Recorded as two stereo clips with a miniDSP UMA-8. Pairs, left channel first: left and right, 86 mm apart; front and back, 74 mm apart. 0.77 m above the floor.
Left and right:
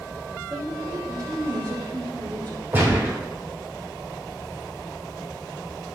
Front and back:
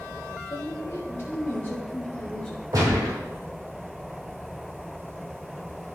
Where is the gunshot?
150° right, 3.5 m.